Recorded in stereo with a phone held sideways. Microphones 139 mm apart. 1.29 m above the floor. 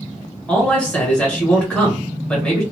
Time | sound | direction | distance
0.5 | a man speaking | 10° left (ahead or behind) | 1.8 m